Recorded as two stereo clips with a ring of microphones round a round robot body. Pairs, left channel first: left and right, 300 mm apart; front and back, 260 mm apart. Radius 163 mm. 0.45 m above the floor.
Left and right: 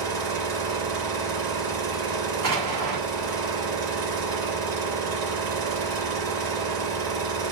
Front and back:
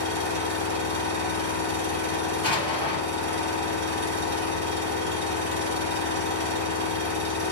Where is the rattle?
I don't hear a rattle.